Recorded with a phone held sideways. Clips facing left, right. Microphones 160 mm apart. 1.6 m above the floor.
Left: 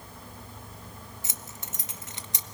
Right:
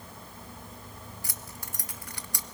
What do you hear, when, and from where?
1.2 s keys jangling: 20° left (ahead or behind), 1.0 m